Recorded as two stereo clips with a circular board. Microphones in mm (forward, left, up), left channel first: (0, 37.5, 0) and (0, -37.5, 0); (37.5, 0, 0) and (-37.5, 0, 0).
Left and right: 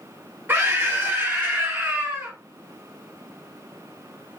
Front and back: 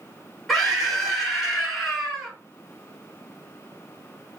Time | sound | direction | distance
0.5 | a scream | 90° right | 1.6 m